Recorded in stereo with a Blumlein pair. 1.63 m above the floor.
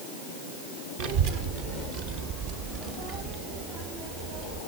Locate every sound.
1.0 s a child speaking: 50° right, 1.2 m; by 4.6 s 40° right, 3.5 m